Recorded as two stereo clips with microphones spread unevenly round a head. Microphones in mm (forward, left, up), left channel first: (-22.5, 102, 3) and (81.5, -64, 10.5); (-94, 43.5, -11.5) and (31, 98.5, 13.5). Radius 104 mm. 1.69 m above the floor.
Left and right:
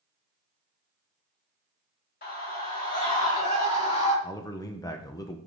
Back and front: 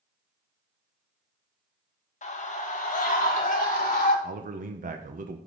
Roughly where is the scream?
Behind.